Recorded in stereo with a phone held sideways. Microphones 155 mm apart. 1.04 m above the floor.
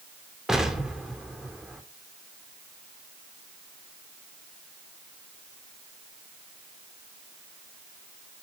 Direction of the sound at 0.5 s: Centre (ahead or behind).